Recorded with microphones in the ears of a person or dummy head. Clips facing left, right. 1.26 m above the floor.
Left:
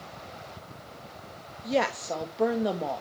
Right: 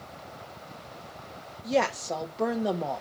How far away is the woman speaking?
About 1.6 m.